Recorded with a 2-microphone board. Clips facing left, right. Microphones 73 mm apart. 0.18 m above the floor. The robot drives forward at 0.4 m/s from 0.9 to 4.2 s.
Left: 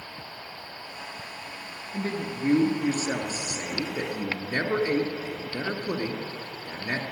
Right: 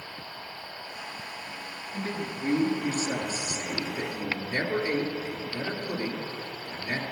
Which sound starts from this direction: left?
A man speaking, at 1.9 s.